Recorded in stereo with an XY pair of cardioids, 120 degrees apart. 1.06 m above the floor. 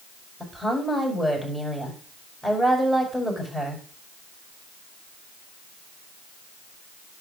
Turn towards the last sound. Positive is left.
turn(degrees=0)